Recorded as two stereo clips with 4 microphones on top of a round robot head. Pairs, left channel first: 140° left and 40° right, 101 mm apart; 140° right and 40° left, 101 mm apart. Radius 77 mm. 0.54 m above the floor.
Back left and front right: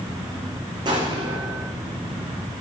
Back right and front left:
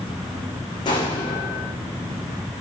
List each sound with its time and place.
0.8 s an explosion: 90° right, 5.5 m